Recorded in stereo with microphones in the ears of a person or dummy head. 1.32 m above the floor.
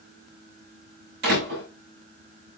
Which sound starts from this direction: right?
A door slam, at 1.2 s.